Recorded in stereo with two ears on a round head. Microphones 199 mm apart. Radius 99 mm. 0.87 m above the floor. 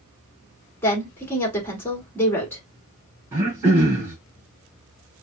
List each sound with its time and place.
0.8 s a woman speaking: 10° left (ahead or behind), 2 m
3.3 s throat clearing: 10° right (ahead or behind), 3.5 m